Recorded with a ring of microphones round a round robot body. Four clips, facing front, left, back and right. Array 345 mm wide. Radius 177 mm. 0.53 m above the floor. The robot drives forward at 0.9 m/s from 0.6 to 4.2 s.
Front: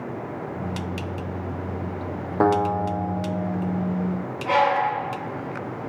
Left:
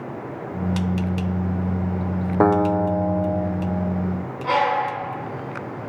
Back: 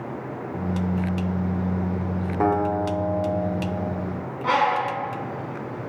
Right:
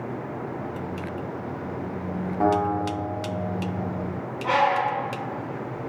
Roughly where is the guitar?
Left.